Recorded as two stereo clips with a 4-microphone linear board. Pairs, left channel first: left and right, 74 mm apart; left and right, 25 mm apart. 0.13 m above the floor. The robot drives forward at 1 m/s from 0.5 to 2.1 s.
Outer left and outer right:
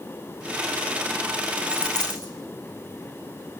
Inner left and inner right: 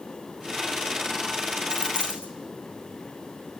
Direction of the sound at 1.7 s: 70° left (ahead or behind).